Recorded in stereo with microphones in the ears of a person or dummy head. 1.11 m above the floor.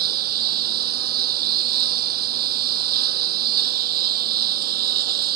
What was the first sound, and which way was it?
A lawn mower, 50° right (ahead or behind).